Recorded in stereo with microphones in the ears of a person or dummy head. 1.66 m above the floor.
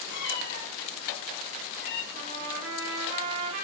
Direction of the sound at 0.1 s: 65° left (ahead or behind).